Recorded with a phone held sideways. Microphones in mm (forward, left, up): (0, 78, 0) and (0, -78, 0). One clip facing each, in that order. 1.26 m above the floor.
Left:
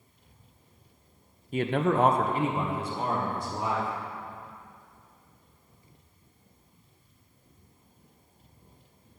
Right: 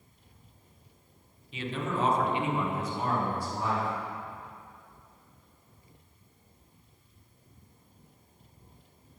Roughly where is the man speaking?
Left.